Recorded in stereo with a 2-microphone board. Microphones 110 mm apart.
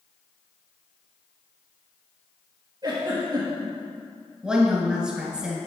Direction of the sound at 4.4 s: 5° right (ahead or behind).